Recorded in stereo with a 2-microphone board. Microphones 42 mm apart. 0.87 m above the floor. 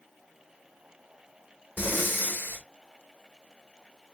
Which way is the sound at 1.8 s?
50° left (ahead or behind).